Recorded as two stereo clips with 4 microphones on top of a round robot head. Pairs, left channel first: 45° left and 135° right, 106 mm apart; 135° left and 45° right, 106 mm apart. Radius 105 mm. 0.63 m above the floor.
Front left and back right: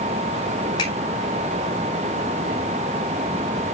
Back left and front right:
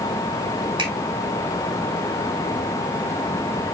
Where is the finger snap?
Straight ahead, 9 m.